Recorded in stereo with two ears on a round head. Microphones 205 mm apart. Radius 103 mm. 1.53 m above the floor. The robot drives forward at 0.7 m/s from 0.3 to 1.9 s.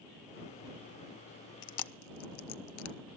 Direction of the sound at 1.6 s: 50° left (ahead or behind).